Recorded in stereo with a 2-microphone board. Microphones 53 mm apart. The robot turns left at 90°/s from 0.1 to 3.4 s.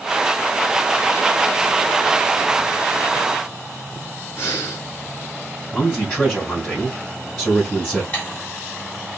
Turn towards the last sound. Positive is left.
turn(degrees=30)  # may be behind; listen again after turning